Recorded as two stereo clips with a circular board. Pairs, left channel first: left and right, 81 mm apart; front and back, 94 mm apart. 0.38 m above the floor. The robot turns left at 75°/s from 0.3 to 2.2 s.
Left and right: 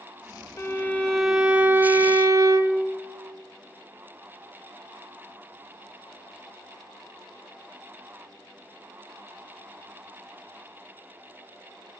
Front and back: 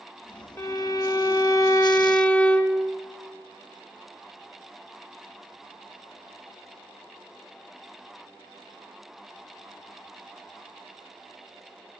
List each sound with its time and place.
0.6 s a violin: 50° left, 0.9 m; by 2.8 s 70° right, 0.9 m